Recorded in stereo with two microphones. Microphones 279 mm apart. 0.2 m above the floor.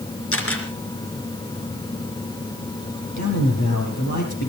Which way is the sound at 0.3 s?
50° left (ahead or behind).